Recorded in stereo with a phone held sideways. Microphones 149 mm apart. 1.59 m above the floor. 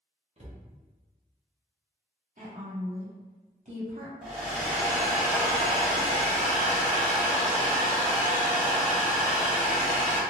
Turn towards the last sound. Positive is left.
turn(degrees=-10)  # may be behind; listen again after turning